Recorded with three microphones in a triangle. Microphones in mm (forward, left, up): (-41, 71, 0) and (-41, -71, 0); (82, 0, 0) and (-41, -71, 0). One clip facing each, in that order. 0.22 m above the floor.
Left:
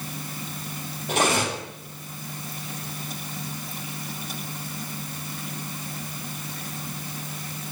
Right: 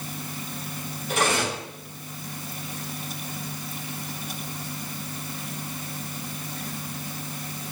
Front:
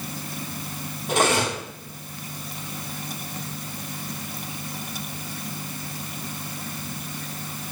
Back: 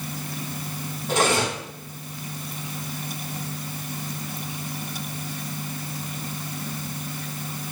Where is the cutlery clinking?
100° left, 4 m.